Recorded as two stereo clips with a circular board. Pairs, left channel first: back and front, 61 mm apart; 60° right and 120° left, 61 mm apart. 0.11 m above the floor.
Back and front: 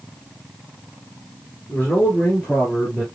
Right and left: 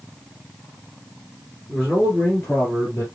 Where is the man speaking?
135° right, 1.7 m; by 3.0 s 105° right, 2.5 m.